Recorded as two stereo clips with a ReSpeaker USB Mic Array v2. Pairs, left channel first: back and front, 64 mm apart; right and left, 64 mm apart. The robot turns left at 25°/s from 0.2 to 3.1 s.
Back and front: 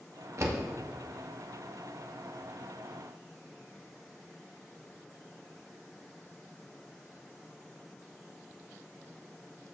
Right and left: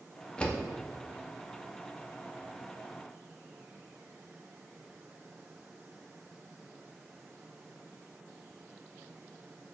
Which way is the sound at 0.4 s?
20° right.